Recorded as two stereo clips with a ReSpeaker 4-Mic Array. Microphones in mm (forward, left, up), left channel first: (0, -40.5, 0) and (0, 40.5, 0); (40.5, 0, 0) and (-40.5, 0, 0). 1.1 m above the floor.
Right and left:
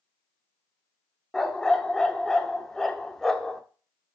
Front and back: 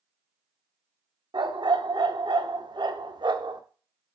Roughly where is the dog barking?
Behind.